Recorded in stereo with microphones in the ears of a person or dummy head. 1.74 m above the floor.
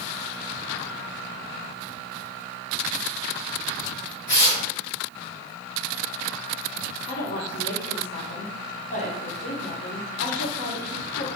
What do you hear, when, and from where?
4.3 s tearing paper: 60° left (ahead or behind), 2.0 m
7.1 s a woman speaking: 55° left (ahead or behind), 1.2 m